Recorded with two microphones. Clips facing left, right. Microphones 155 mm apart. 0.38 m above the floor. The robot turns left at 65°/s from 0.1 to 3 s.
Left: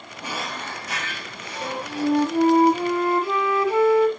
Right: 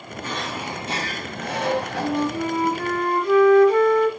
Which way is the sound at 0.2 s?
15° left.